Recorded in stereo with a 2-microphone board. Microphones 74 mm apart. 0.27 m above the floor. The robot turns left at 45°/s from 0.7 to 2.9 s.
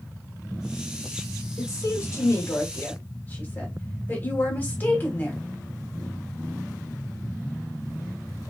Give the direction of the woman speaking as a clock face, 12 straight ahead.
9 o'clock.